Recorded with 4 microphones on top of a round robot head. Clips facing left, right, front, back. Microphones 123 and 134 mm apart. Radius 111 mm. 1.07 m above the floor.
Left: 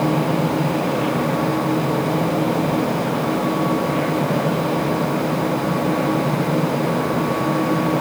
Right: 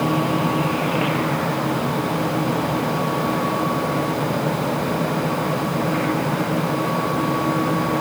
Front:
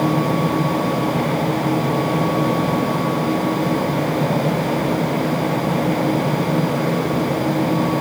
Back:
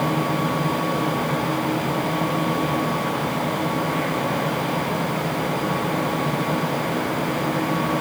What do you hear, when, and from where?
Only background noise.